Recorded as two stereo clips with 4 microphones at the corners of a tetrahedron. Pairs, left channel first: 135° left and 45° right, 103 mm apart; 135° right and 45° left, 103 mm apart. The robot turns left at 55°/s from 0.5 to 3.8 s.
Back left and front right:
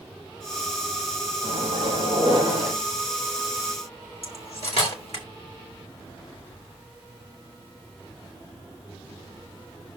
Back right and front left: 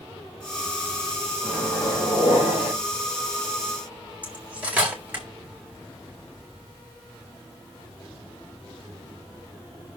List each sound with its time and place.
1.4 s a microwave: 50° right, 3.5 m; by 2.7 s 120° right, 3.5 m
4.2 s cutlery clinking: 120° left, 1.8 m